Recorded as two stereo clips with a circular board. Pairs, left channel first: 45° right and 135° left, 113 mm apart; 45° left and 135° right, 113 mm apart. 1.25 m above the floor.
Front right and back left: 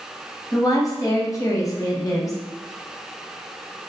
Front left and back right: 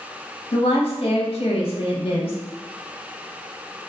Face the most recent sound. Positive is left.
turn(degrees=15)